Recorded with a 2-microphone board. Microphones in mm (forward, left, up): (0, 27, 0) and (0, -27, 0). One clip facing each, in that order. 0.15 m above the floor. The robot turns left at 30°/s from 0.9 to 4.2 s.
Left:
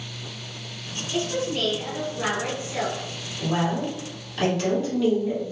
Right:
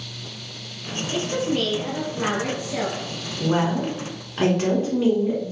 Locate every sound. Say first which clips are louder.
1.1 s a woman speaking: right 2 dB; 25° right (ahead or behind), 1.1 m; by 3.0 s centre (ahead or behind), 1.1 m
3.4 s a woman speaking: right 3 dB; 35° right (ahead or behind), 1.2 m